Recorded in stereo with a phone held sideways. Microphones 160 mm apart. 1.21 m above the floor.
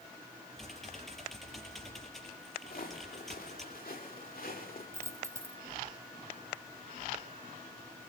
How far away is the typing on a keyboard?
About 4.5 m.